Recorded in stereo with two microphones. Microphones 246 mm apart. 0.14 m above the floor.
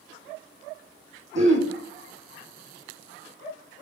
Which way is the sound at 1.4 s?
50° right (ahead or behind).